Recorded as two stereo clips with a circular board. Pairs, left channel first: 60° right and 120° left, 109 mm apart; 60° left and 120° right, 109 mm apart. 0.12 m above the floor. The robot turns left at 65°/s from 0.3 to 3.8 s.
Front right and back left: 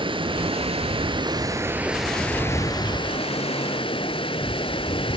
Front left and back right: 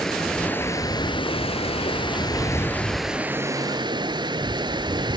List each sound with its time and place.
0.0 s running water: 145° left, 0.8 m; by 5.2 s 80° right, 0.8 m